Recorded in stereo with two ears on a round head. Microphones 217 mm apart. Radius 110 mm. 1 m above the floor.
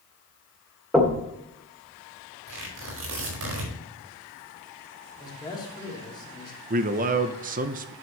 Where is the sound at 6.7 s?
35° right (ahead or behind), 0.6 m.